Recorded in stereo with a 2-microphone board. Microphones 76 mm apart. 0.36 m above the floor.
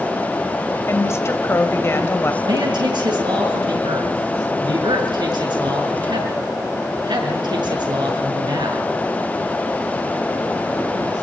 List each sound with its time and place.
0.9 s a woman speaking: 35° left (ahead or behind), 1.9 m
2.4 s a man speaking: 75° right (ahead or behind), 6 m